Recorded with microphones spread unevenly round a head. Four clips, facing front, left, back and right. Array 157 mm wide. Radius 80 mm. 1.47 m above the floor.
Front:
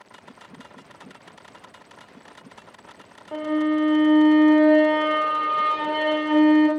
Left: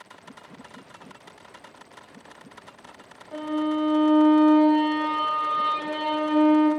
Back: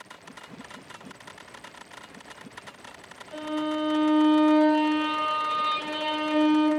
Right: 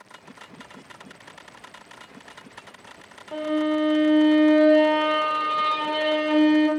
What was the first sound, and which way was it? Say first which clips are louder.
A violin: right 2 dB, front 7 dB; 30° right.